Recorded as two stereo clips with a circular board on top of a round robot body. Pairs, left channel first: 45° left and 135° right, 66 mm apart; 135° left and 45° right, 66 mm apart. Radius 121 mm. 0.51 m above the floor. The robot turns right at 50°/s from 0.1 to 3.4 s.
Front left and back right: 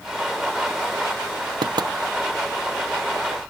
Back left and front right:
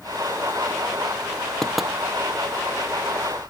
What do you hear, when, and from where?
1.6 s knocking: 145° right; by 1.9 s 130° right